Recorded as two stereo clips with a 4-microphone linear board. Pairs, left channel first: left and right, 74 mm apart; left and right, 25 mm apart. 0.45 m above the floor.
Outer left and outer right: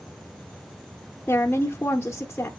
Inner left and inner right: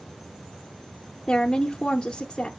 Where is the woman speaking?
30° left (ahead or behind), 0.8 m.